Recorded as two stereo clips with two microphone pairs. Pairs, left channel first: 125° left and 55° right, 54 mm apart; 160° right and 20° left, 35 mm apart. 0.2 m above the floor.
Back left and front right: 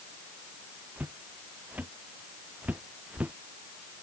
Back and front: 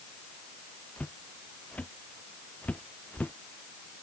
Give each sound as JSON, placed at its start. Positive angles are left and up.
{"t": 1.0, "sound": "footsteps", "azimuth_deg": -110}